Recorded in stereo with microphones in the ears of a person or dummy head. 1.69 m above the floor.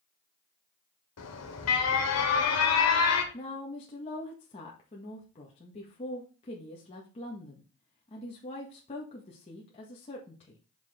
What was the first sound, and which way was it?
An alarm, 75° left (ahead or behind).